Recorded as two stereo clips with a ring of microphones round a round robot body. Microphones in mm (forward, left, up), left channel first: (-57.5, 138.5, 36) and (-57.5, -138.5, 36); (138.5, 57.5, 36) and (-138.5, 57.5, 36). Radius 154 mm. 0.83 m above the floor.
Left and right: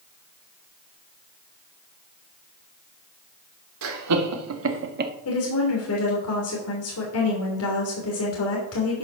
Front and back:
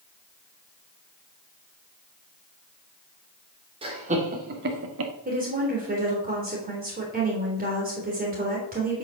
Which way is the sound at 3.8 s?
110° right.